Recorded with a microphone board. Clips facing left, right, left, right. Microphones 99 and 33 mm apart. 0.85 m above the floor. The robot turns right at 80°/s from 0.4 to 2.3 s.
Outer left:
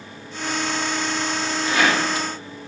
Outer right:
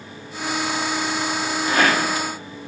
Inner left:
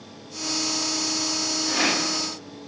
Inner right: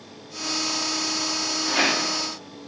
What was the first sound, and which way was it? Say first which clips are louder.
A rattle: outer right 1 dB, inner right 2 dB; 150° right.